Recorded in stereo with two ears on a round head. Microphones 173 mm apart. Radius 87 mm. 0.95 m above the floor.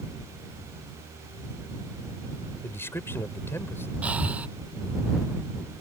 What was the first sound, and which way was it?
A man speaking, 15° left (ahead or behind).